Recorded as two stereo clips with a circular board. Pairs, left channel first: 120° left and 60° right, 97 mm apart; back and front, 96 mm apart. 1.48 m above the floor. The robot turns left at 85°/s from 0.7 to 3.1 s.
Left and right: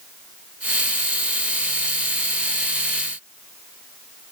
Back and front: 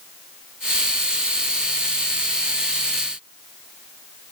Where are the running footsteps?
I don't hear running footsteps.